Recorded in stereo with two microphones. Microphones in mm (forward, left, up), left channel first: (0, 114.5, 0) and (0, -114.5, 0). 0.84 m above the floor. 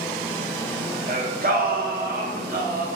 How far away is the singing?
About 1.6 m.